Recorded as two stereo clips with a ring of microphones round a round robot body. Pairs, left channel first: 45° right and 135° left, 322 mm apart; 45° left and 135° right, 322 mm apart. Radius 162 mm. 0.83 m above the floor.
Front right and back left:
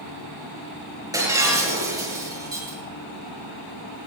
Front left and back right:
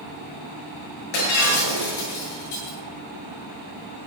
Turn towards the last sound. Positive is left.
turn(degrees=55)